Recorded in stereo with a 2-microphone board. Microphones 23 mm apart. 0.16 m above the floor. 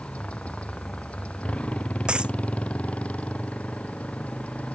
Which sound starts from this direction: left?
A motorcycle, at 0.0 s.